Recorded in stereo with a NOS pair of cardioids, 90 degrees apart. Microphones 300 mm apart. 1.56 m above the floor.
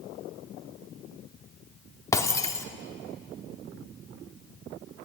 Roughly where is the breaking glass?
Ahead.